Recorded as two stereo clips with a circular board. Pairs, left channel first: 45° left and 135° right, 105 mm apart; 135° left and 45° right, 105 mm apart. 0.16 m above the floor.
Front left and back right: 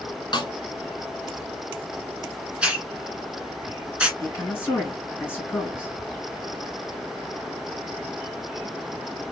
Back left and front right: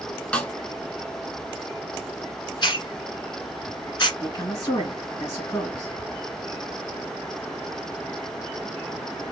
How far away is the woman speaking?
About 2 m.